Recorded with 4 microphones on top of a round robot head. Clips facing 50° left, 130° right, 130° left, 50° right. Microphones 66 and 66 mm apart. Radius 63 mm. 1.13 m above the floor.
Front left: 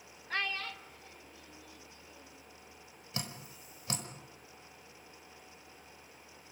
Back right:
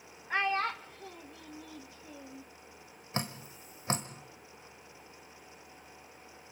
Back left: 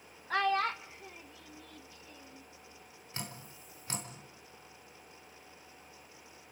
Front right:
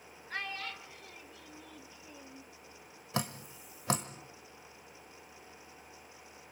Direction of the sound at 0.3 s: 150° left.